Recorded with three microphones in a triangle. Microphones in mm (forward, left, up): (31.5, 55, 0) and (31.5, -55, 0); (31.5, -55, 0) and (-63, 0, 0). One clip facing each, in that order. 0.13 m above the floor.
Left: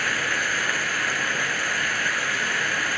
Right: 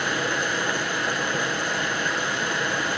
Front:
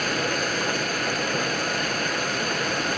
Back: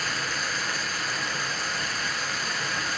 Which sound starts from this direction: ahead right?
Running water, at 0.0 s.